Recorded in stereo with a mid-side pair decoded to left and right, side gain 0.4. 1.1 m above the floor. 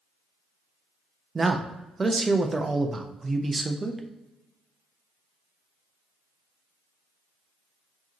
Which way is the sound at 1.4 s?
30° right.